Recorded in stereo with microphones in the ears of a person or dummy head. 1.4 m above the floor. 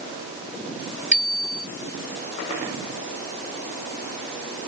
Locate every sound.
1.1 s a bicycle bell: centre (ahead or behind)